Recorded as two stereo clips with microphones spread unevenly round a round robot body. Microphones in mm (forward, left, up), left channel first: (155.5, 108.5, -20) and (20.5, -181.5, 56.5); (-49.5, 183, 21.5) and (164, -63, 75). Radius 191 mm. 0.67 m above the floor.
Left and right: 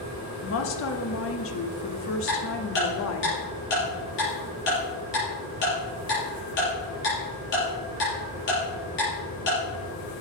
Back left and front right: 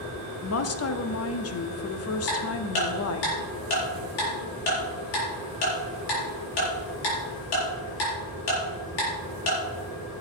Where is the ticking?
130° left, 5.5 m.